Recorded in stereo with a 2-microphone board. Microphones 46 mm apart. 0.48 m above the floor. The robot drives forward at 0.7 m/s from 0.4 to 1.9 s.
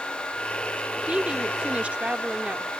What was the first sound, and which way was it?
A woman speaking, 25° right (ahead or behind).